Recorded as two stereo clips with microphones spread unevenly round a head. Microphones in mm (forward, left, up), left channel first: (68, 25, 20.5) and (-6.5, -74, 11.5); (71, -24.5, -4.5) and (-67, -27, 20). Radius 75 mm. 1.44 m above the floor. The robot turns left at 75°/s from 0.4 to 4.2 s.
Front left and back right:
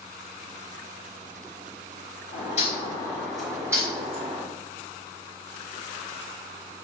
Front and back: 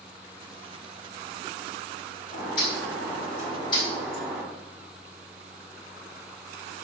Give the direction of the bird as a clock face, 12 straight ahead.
10 o'clock.